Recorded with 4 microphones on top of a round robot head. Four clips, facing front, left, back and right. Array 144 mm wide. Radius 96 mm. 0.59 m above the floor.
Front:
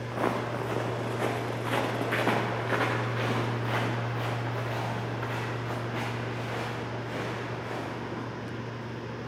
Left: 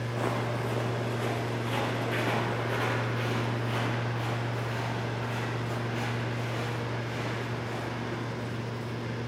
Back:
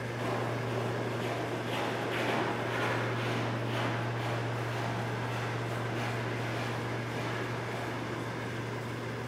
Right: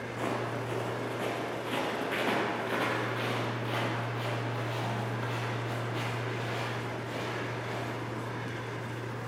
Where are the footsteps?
15° left, 2.0 m; by 8.2 s 20° right, 6 m.